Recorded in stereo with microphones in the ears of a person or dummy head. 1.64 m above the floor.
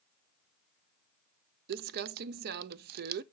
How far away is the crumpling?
About 0.5 m.